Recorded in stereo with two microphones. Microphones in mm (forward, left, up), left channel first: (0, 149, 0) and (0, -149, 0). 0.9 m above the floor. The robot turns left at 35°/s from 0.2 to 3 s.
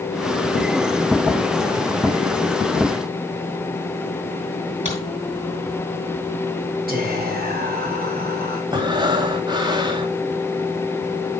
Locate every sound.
4.8 s a crack: 20° right (ahead or behind), 6.5 m
6.9 s whispering: 30° right (ahead or behind), 4.5 m
8.7 s breathing: 15° right (ahead or behind), 1.5 m